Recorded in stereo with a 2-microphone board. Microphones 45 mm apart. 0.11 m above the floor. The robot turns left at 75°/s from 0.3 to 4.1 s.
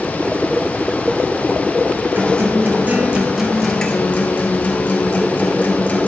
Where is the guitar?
80° right, 1.7 m; by 6.1 s 135° left, 1.7 m.